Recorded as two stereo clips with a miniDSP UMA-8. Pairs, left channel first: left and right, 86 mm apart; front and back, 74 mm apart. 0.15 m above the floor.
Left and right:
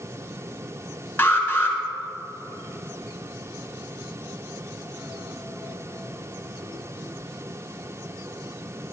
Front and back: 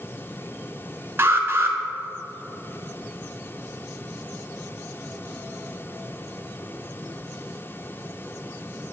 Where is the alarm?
145° left, 1.1 m.